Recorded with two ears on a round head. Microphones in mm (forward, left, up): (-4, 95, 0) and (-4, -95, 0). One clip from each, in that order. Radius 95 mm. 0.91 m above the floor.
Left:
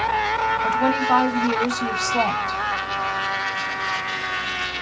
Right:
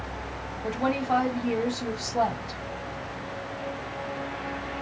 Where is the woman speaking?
50° left (ahead or behind), 1.3 m.